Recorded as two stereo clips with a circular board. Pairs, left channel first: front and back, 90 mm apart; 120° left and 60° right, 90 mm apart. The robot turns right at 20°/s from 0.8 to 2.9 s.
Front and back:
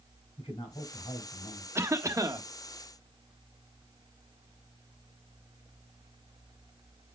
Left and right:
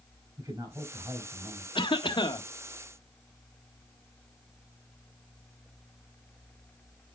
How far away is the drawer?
No drawer in this recording.